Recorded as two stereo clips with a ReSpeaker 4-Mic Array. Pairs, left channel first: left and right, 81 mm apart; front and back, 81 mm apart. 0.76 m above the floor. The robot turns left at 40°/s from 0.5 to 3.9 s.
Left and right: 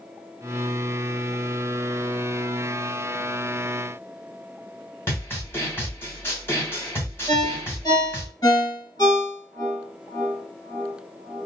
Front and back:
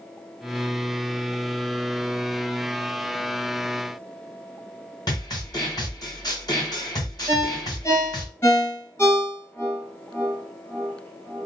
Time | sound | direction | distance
5.1 | a snare drum | 30° left | 1.6 m
7.3 | a ringtone | 50° left | 2 m